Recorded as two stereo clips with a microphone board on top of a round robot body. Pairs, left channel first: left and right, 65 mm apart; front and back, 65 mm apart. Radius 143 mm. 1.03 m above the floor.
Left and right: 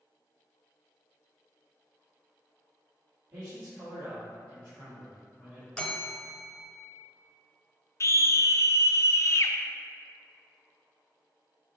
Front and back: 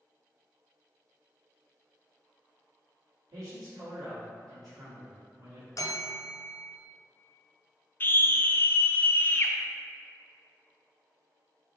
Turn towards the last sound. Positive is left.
turn(degrees=55)